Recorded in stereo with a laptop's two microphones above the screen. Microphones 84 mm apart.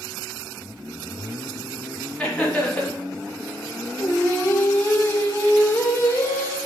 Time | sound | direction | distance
2.2 | laughter | 10° left (ahead or behind) | 1.5 m
4.0 | singing | 25° left (ahead or behind) | 0.6 m